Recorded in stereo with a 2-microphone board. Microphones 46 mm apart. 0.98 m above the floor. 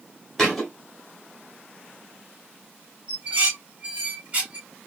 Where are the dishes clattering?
25° right (ahead or behind), 1.7 m.